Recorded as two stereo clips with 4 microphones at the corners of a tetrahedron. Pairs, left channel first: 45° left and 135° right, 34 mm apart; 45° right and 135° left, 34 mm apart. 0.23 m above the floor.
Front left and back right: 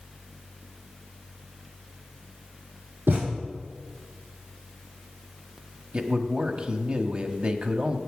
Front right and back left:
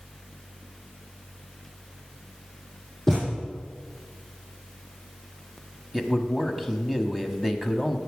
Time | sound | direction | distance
3.1 | a thud | 135° right | 7 m
5.9 | a man speaking | 145° right | 1.1 m